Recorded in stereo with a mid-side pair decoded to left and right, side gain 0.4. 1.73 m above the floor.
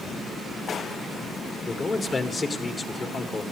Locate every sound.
1.7 s a man speaking: 45° left, 1.7 m